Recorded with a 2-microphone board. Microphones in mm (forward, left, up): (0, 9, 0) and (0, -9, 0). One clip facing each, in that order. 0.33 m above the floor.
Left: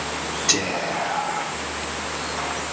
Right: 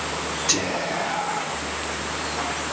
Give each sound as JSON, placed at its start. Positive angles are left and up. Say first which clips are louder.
{"t": 0.5, "sound": "whispering", "louder": "left 2 dB", "side_deg": 40, "distance_m": 1.6}